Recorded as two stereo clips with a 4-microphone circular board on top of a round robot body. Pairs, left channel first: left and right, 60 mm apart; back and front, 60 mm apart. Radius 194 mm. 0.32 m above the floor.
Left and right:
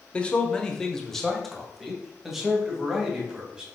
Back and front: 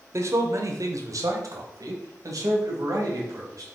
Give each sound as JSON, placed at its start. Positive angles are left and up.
{"t": 0.1, "sound": "a man speaking", "azimuth_deg": 20, "distance_m": 1.5}